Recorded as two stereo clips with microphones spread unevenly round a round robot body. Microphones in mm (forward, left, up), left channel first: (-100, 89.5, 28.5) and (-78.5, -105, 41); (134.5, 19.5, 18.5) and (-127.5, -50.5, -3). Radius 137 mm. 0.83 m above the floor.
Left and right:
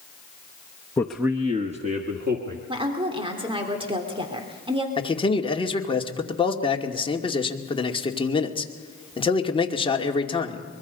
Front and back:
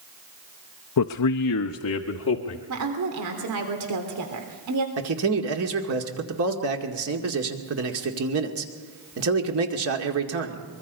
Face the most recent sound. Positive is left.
turn(degrees=160)